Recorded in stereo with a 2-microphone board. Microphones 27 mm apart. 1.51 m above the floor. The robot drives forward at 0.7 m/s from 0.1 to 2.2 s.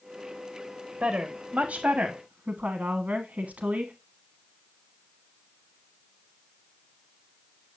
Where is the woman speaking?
65° right (ahead or behind), 1.6 m; by 3.9 s 85° right, 1.4 m.